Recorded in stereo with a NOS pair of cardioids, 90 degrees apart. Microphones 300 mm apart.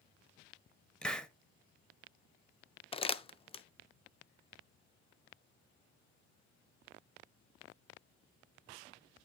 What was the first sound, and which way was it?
A hiss, 5° left.